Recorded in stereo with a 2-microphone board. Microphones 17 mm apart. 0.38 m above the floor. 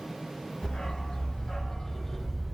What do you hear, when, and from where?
0.6 s a dog barking: 80° left, 1.0 m; by 2.5 s centre (ahead or behind), 0.7 m